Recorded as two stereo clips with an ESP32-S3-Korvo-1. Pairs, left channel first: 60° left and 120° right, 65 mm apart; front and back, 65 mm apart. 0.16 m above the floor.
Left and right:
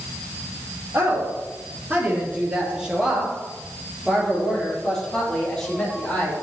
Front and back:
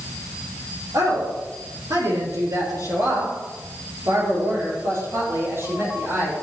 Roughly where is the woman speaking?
Behind.